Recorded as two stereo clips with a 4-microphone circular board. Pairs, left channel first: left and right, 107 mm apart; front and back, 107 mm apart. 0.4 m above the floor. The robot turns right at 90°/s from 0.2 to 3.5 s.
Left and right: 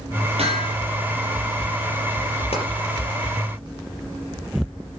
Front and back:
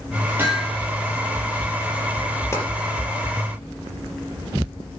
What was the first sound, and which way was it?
Hammering, 110° right.